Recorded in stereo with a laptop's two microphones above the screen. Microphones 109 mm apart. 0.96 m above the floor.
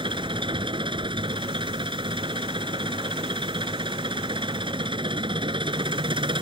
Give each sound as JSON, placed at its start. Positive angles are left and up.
{"t": 0.0, "sound": "an engine running", "side_deg": -55}